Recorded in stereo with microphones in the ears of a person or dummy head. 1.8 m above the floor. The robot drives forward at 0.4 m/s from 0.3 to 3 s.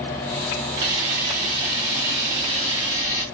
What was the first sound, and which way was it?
A camera shutter, 45° right (ahead or behind).